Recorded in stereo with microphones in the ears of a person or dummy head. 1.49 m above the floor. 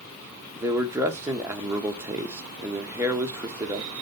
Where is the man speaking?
15° right (ahead or behind), 1.4 m.